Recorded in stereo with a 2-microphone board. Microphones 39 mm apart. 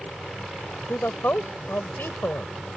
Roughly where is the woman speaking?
Left.